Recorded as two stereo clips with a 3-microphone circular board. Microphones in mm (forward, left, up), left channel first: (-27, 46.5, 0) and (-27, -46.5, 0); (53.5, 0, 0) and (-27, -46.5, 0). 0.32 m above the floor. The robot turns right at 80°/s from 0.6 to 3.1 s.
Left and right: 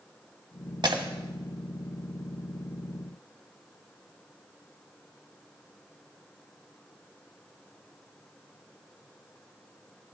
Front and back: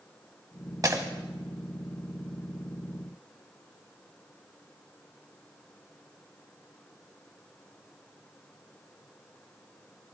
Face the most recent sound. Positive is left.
turn(degrees=70)